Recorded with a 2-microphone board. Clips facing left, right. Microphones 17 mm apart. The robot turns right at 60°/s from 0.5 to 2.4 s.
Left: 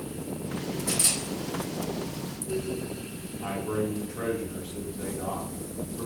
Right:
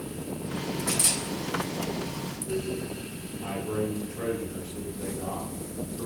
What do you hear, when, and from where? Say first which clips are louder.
0.9 s a camera shutter: even; 20° right (ahead or behind), 4 m; by 1.2 s centre (ahead or behind), 4 m
3.4 s a man speaking: left 1 dB; 65° left (ahead or behind), 3 m